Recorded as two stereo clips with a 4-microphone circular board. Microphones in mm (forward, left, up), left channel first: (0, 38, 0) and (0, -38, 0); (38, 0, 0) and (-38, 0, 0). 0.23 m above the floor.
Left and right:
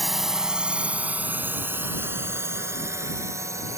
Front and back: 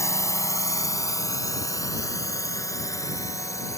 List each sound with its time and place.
0.0 s a drone: straight ahead; by 3.8 s 45° right